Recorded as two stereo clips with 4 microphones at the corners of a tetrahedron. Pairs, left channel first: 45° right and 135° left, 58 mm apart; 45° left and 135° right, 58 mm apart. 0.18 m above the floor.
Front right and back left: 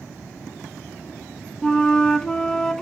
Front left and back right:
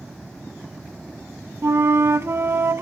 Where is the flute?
120° right, 0.5 m.